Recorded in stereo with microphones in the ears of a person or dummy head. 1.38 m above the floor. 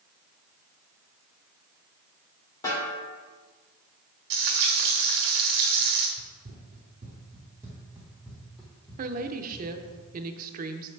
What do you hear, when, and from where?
2.6 s a snare drum: 25° left (ahead or behind), 2.5 m
4.3 s frying: 60° right (ahead or behind), 1.4 m
6.2 s running footsteps: 45° right (ahead or behind), 1.9 m; by 10.0 s 25° left (ahead or behind), 3 m
9.0 s a woman speaking: 50° right (ahead or behind), 0.8 m